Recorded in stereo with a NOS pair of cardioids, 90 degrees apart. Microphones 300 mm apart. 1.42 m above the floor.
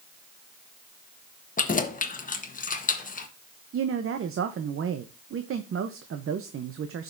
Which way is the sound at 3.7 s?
45° right.